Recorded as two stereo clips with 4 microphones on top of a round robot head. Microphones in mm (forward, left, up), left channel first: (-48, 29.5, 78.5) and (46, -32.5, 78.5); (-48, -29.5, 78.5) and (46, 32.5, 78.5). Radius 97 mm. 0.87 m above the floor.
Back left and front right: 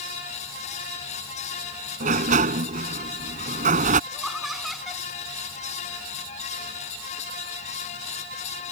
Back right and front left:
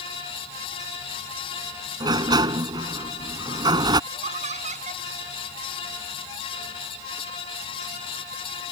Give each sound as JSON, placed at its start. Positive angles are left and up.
{"t": 2.0, "sound": "a sliding door", "azimuth_deg": -20}
{"t": 4.1, "sound": "laughter", "azimuth_deg": 55}